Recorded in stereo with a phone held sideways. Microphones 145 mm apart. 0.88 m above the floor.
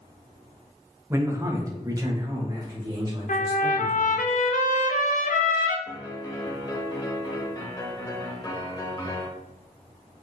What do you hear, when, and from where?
1.1 s a man speaking: 15° right (ahead or behind), 0.7 m; by 4.2 s 25° right (ahead or behind), 2.5 m
3.3 s a trumpet: 60° left (ahead or behind), 0.5 m
5.9 s a piano: 25° left (ahead or behind), 0.8 m